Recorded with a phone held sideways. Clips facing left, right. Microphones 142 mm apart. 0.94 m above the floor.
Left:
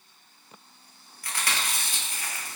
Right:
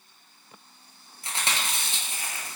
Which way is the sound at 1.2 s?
25° right (ahead or behind).